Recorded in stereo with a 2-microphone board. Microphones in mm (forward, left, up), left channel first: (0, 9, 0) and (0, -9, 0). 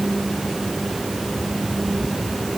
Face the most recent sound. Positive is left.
No sound to turn to.